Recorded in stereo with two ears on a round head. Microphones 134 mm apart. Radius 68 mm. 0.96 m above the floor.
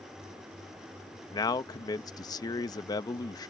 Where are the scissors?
No scissors in this recording.